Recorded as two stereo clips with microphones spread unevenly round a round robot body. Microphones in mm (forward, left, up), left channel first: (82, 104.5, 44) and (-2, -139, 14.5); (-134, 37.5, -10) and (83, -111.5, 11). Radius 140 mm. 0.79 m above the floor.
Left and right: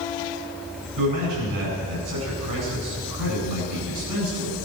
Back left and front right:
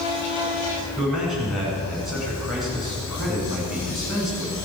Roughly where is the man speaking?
Behind right.